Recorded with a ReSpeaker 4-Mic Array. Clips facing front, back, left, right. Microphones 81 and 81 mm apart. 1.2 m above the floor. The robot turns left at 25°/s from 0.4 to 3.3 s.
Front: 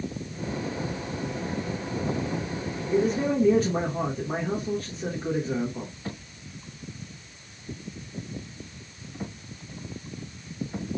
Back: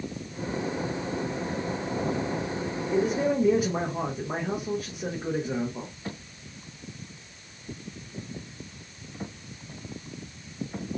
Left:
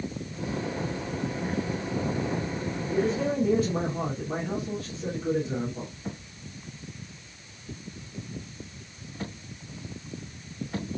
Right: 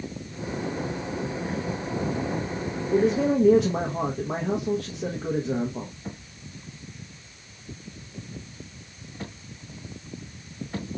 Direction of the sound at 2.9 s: 90° right.